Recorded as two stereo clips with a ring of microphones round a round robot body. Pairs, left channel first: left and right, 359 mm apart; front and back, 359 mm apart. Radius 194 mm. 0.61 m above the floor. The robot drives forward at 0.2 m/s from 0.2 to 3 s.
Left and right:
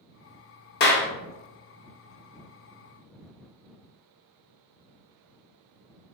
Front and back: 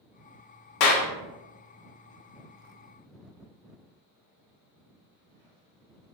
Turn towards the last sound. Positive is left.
turn(degrees=75)